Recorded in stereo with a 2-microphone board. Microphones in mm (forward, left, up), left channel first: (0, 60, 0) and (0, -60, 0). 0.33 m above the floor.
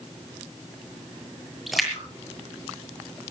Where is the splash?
Centre (ahead or behind), 7.5 m.